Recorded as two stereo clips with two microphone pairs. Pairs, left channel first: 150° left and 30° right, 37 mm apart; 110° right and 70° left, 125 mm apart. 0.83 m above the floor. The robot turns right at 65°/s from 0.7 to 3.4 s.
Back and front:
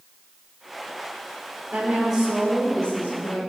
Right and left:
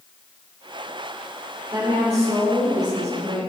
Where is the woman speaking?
15° left, 2 m; by 3.4 s 125° left, 2 m.